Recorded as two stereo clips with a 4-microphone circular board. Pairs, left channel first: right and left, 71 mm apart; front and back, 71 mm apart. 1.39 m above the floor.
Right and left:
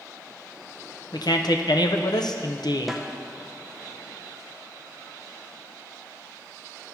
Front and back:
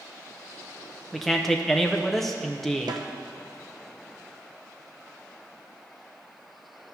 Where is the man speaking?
85° right, 0.7 m.